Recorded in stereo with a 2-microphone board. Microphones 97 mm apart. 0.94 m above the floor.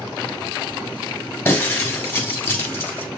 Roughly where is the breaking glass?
Left.